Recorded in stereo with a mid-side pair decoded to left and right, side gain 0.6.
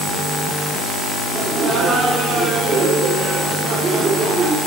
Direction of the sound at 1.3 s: 25° right.